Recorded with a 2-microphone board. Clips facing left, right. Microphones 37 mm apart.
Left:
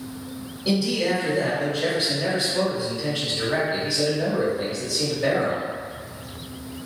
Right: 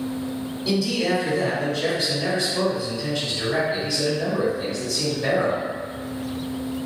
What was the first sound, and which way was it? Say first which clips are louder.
A man speaking: even; 25° left (ahead or behind).